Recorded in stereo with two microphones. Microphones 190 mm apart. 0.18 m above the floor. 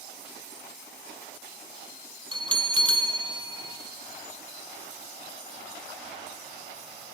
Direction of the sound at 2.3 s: 25° right (ahead or behind).